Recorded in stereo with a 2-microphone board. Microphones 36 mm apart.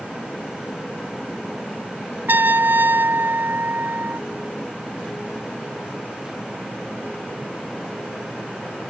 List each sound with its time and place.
2.3 s a trumpet: 70° right (ahead or behind)